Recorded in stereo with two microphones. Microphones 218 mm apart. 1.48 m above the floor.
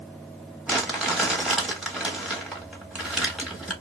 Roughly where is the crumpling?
Centre.